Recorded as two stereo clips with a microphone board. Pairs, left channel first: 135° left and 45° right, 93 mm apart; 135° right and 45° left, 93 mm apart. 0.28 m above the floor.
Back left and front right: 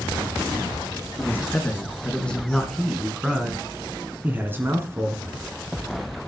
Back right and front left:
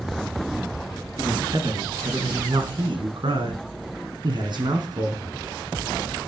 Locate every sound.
1.2 s a man speaking: 70° left, 3 m; by 5.2 s 10° left, 2.5 m